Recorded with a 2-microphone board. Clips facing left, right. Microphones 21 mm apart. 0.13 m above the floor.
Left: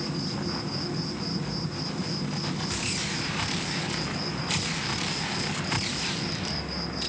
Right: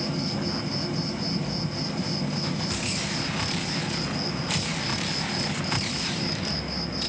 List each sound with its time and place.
0.0 s an insect: 55° right (ahead or behind), 2.5 m